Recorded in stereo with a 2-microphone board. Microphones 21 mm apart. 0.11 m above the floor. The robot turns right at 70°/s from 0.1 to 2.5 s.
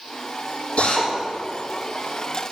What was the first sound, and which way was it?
A drill, 70° left (ahead or behind).